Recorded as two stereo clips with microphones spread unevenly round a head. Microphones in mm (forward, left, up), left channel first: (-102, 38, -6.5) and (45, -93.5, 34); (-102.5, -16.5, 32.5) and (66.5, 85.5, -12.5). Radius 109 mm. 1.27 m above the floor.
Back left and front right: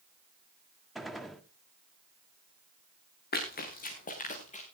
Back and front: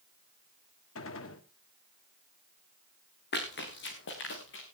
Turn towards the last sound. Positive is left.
turn(degrees=-165)